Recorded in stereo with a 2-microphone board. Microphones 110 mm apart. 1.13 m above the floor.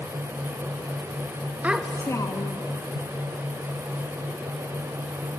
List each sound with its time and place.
1.6 s a child speaking: 15° right (ahead or behind), 0.6 m; by 2.7 s 50° left (ahead or behind), 1.0 m